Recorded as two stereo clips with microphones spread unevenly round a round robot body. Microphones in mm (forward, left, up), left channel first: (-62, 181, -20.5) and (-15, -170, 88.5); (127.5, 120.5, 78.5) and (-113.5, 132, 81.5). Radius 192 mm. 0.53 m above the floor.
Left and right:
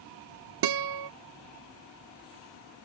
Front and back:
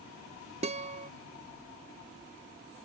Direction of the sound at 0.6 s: 120° right.